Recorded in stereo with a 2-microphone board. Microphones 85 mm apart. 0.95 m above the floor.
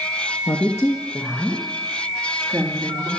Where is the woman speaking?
45° left (ahead or behind), 1.1 m; by 3.1 s 20° right (ahead or behind), 2.5 m.